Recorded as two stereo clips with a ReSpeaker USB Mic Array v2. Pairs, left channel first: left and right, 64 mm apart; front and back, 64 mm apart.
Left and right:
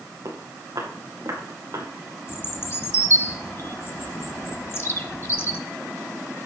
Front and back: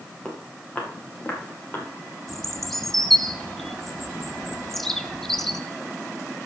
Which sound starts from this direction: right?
Footsteps, at 0.2 s.